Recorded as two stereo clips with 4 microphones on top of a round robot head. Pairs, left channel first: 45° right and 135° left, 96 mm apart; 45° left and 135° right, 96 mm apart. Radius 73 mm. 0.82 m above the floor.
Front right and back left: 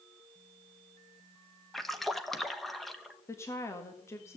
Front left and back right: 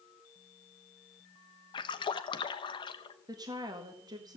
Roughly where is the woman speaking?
Right.